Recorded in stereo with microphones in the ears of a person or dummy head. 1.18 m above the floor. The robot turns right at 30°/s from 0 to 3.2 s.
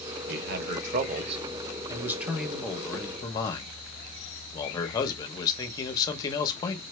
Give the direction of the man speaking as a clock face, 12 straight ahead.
2 o'clock.